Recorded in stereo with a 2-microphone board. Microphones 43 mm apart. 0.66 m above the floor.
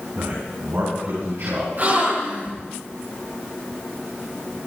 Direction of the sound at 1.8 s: 45° right (ahead or behind).